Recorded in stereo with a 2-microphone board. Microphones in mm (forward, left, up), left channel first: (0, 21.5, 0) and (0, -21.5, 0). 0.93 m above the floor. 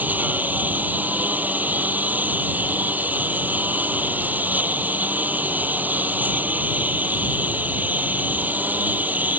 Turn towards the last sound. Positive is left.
turn(degrees=-40)  # may be behind; listen again after turning